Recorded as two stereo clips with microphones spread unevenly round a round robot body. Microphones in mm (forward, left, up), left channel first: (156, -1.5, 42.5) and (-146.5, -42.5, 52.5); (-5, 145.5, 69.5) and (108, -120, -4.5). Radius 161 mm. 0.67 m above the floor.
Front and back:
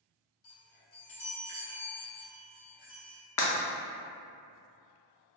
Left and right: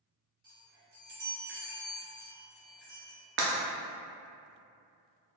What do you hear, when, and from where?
0.4 s a chime: 5° right, 1.7 m
3.4 s breaking glass: 25° right, 0.7 m